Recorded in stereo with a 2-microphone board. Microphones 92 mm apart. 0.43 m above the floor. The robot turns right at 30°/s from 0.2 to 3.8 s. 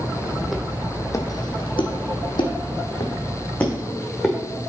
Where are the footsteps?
5° right (ahead or behind), 1.1 m; by 4.3 s centre (ahead or behind), 2.5 m.